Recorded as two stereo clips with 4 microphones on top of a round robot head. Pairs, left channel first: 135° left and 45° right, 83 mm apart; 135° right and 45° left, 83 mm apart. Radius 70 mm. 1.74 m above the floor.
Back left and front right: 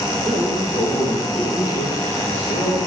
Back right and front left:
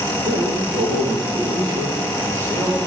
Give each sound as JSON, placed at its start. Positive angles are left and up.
{"t": 0.2, "sound": "a man speaking", "azimuth_deg": 50, "distance_m": 1.8}